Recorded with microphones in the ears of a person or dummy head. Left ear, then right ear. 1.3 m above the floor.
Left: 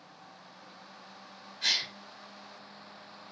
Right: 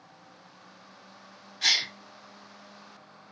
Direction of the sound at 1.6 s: 25° right (ahead or behind).